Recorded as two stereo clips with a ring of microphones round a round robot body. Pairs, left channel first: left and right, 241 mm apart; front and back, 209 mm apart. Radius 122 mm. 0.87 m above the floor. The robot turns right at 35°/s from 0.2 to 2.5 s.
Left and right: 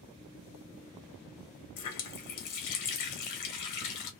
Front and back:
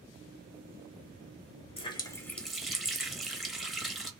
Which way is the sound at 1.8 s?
65° left.